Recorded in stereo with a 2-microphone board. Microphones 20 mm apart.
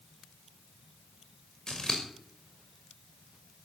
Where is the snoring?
No snoring in this recording.